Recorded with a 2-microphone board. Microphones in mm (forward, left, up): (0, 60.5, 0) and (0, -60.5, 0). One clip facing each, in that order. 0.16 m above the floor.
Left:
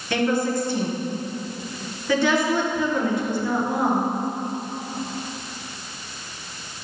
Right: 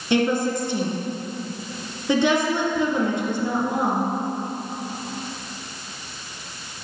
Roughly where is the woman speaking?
Right.